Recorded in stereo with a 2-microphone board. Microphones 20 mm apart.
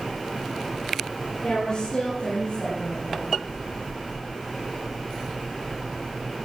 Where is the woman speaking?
55° left (ahead or behind), 10 m; by 3.4 s 65° left (ahead or behind), 11.5 m.